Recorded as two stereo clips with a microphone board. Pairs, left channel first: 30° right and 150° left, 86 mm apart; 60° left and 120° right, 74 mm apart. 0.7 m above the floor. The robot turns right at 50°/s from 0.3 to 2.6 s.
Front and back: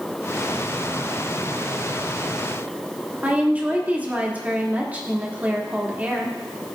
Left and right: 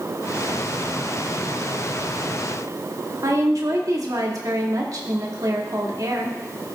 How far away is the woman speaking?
About 1.5 m.